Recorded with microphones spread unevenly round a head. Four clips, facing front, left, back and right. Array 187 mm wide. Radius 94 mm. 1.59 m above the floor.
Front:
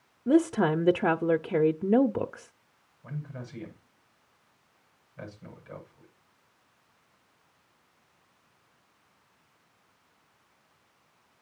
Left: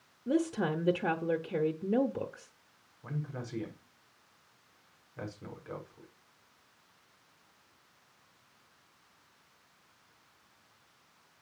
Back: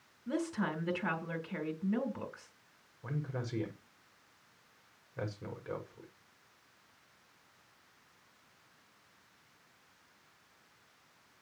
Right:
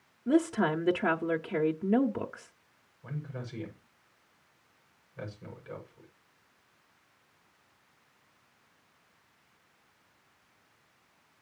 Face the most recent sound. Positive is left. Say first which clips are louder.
# left 1 dB, back 1 dB
turn(degrees=170)